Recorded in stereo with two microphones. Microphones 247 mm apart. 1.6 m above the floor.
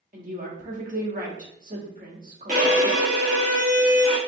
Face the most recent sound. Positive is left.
turn(degrees=-30)  # may be behind; listen again after turning